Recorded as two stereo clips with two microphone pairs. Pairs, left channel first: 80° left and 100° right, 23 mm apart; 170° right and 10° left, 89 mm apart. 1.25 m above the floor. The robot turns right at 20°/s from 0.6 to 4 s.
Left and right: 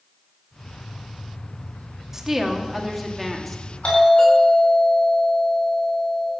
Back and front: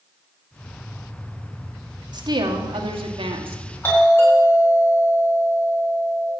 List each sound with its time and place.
2.1 s a woman speaking: 30° right, 2 m; by 3.6 s straight ahead, 2 m
3.8 s a doorbell: 125° left, 8.5 m